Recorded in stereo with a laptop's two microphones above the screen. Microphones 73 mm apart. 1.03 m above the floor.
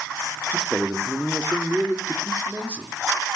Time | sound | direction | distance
0.5 | a man speaking | 20° right (ahead or behind) | 2.5 m